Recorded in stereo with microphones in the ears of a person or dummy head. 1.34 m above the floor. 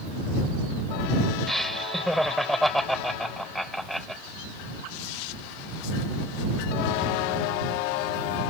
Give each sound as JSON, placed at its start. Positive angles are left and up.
{"t": 1.5, "sound": "laughter", "side_deg": 0}